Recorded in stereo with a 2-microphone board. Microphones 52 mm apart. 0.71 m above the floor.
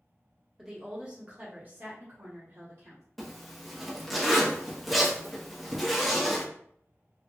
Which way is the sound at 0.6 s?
5° right (ahead or behind).